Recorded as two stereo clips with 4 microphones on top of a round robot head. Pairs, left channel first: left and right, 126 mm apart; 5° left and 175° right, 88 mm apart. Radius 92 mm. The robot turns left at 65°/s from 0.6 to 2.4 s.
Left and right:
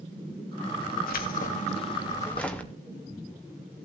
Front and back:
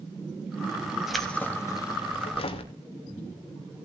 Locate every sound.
1.1 s keys jangling: 95° left, 2.0 m; by 2.7 s 10° left, 2.0 m